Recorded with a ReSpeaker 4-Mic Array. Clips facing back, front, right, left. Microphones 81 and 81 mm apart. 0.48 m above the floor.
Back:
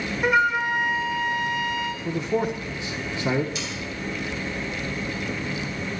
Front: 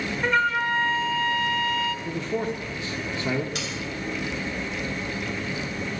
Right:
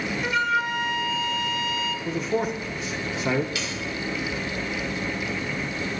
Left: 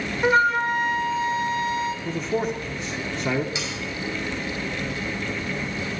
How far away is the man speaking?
About 0.8 m.